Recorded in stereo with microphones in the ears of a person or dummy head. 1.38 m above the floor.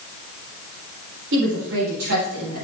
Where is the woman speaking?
60° right (ahead or behind), 4 m.